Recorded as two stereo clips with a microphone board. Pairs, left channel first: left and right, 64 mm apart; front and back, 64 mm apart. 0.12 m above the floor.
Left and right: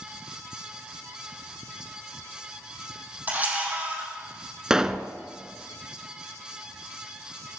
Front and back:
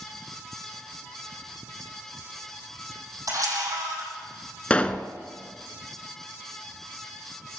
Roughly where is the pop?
Ahead right.